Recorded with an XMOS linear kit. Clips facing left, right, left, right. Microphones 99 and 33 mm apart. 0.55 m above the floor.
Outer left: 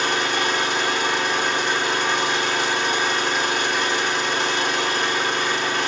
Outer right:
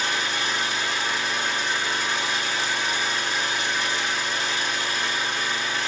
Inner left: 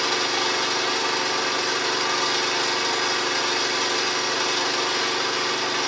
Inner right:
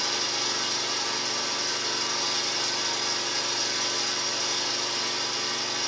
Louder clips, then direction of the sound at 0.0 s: Outer left 5 dB, inner left 6 dB; 65° left (ahead or behind).